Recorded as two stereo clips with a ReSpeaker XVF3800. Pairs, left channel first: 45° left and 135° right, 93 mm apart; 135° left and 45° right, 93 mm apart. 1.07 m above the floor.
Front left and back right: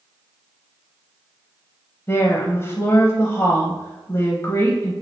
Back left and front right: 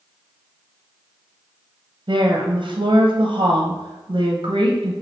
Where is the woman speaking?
15° right, 0.6 m.